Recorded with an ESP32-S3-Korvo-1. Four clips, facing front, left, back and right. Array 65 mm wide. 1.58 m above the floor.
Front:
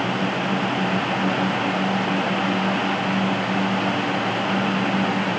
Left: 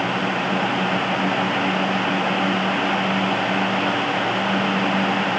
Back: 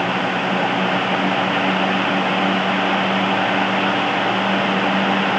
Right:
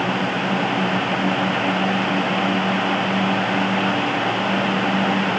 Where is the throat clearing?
No throat clearing in this recording.